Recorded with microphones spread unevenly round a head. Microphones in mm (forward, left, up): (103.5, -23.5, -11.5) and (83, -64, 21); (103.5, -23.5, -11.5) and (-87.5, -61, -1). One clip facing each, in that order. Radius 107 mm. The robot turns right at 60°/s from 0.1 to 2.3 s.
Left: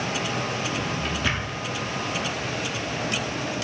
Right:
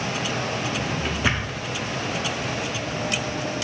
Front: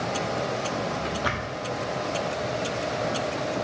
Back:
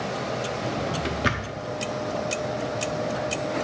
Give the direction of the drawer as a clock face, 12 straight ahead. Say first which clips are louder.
Right 1 dB, back 1 dB; 5 o'clock.